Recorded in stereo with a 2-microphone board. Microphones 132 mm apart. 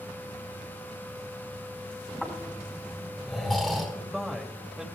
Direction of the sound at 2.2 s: Centre (ahead or behind).